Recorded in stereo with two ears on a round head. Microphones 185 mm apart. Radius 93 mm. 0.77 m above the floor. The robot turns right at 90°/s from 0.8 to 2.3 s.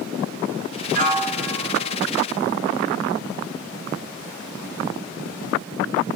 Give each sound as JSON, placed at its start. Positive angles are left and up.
{"t": 0.9, "sound": "a piano", "azimuth_deg": -50, "distance_m": 1.7}